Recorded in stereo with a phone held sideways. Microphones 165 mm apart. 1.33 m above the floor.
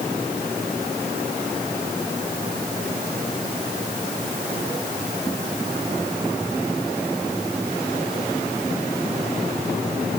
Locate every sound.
Only background noise.